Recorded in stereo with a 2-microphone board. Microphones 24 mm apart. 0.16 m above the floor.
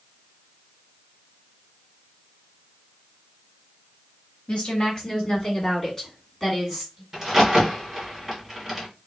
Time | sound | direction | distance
4.5 | a woman speaking | 40° left (ahead or behind) | 1.9 m
7.1 | a crack | 10° right (ahead or behind) | 1.9 m